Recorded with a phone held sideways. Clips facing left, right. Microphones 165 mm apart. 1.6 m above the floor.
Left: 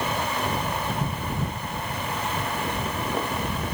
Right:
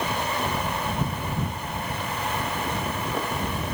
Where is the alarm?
I don't hear an alarm.